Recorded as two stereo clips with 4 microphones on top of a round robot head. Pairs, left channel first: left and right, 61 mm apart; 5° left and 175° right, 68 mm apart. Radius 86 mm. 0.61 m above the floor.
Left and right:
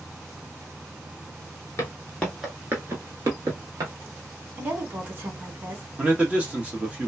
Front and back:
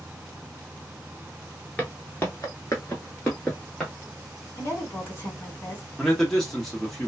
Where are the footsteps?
65° left, 0.6 m; by 3.9 s 75° right, 1.0 m.